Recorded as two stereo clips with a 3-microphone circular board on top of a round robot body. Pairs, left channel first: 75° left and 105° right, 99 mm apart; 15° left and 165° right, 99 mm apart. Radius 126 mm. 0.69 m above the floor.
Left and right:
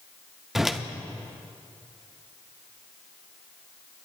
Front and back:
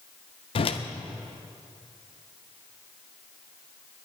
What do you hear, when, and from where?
0.6 s a whoosh: 20° right, 0.6 m